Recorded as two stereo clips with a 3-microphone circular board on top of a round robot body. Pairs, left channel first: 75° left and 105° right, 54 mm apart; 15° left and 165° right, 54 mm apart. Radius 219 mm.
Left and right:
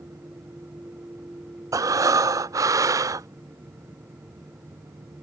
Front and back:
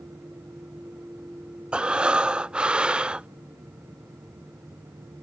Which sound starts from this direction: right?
Breathing, at 1.7 s.